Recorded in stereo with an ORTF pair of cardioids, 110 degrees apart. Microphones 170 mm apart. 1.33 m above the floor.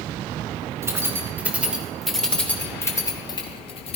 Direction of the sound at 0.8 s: 15° right.